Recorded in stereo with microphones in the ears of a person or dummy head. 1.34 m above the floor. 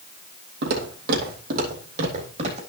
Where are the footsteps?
60° right (ahead or behind), 3 m; by 2.6 s 30° right (ahead or behind), 3.5 m.